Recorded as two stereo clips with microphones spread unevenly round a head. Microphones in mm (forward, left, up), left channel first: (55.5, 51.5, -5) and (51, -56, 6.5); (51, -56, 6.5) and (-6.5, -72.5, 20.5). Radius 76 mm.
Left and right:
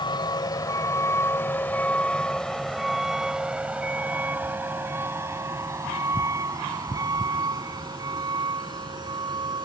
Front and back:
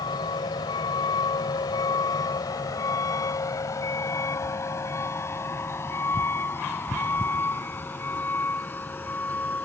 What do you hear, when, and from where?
0.0 s a vehicle: 40° left; by 9.7 s 45° right